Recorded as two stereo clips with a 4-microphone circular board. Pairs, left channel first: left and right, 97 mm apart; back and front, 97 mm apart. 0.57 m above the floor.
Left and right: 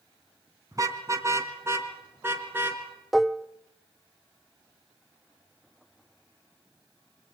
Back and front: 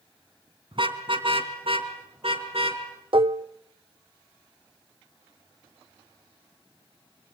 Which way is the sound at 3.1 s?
Straight ahead.